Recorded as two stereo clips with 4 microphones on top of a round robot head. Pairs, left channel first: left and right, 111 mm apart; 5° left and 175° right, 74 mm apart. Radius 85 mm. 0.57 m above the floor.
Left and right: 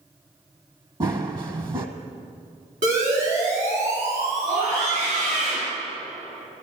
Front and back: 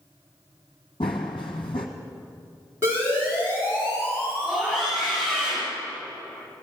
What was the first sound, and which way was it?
Running footsteps, 40° right.